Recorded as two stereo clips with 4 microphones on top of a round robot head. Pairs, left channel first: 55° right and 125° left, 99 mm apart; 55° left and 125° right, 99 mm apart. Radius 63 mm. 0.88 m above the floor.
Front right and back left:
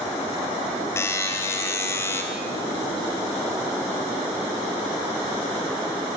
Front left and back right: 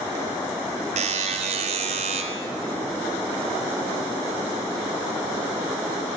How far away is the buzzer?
About 3.5 m.